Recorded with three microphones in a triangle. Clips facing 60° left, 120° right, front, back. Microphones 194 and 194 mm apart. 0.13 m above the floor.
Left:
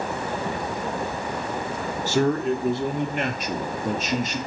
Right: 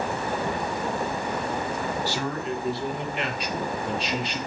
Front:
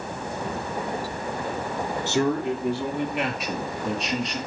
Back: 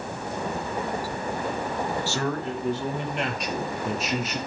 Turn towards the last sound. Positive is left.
turn(degrees=95)